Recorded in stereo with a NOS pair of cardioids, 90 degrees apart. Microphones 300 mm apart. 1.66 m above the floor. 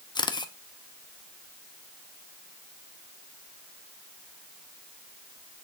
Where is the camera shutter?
15° left, 0.8 m.